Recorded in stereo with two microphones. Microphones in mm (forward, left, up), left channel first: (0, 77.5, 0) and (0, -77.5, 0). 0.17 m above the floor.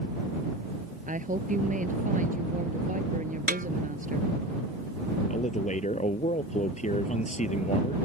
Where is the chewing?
No chewing in this recording.